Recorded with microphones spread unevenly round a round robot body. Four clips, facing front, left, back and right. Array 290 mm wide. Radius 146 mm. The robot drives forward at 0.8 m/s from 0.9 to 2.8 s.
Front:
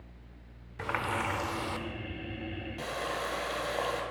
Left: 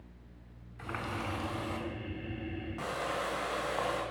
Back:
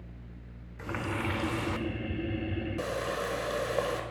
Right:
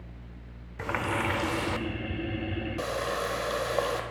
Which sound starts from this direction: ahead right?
A running tap, at 0.8 s.